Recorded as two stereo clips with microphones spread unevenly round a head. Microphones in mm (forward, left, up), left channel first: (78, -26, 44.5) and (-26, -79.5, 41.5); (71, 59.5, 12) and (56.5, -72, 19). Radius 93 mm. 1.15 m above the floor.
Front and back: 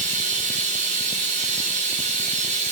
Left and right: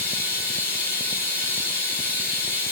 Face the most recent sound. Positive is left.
turn(degrees=165)